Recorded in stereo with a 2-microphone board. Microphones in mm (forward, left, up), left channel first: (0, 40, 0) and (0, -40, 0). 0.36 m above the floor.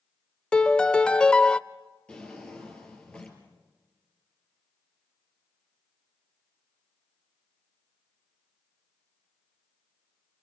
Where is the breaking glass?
No breaking glass in this recording.